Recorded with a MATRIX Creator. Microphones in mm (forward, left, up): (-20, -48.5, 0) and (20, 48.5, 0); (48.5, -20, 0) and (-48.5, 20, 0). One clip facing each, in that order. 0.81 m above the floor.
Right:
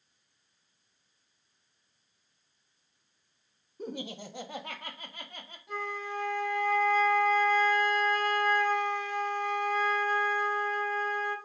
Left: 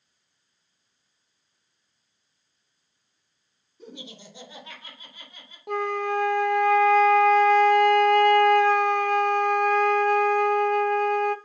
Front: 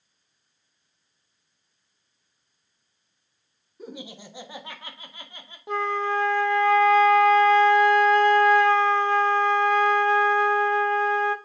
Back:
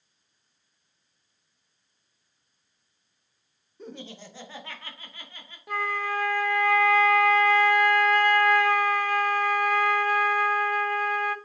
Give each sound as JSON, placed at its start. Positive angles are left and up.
{"t": 3.8, "sound": "laughter", "azimuth_deg": -100, "distance_m": 1.1}
{"t": 5.7, "sound": "a flute", "azimuth_deg": 45, "distance_m": 0.6}